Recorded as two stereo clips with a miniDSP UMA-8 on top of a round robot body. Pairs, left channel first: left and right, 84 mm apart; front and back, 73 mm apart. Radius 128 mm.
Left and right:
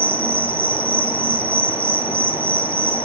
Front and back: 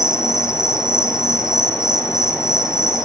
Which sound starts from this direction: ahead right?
An insect, at 0.0 s.